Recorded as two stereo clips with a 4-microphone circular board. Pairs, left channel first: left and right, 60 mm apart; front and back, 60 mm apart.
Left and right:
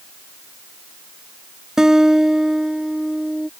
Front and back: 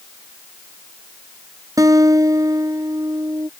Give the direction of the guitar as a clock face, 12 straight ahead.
6 o'clock.